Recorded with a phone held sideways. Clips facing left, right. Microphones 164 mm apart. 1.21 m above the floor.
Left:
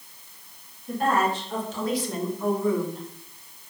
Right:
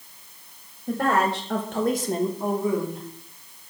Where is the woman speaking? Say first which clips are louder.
Right 1 dB; 75° right (ahead or behind), 2 m; by 3.0 s centre (ahead or behind), 2 m.